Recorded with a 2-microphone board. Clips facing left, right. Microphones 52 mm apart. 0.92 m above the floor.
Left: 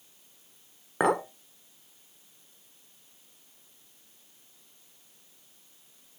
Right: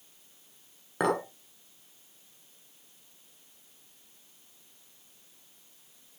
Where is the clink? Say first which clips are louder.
Left 3 dB; 20° left (ahead or behind), 1.6 m.